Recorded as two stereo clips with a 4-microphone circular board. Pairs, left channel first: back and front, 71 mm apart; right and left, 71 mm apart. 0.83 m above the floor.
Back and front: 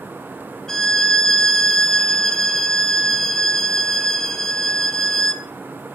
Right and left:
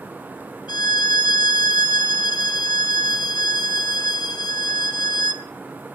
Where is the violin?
100° right, 1.4 m.